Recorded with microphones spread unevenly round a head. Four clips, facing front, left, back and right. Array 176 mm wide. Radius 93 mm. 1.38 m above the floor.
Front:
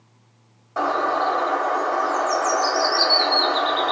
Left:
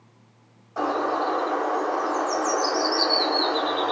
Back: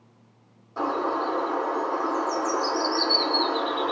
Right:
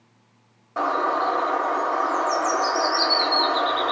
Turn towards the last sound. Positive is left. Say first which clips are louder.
# right 2 dB, front 5 dB
turn(degrees=-45)